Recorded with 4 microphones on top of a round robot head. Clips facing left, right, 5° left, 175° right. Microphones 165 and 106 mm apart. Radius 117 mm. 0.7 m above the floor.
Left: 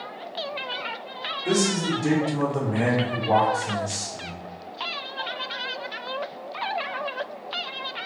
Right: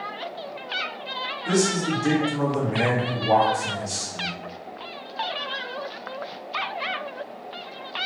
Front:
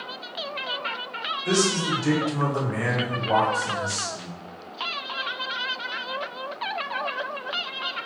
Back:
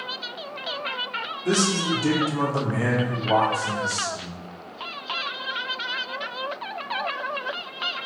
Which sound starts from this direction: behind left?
A man speaking, at 1.4 s.